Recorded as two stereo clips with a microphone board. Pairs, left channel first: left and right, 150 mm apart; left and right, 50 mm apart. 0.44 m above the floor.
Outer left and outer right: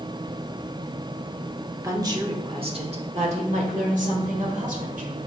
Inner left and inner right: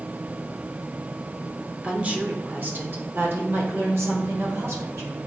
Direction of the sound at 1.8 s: 20° right (ahead or behind).